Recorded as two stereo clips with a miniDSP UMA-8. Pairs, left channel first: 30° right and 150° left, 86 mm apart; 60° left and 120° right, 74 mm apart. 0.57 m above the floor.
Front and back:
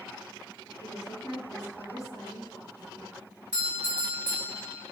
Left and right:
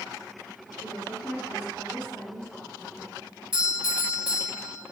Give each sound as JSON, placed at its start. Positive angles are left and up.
{"t": 0.8, "sound": "a woman speaking", "azimuth_deg": -10, "distance_m": 1.5}
{"t": 3.5, "sound": "a doorbell", "azimuth_deg": -155, "distance_m": 1.7}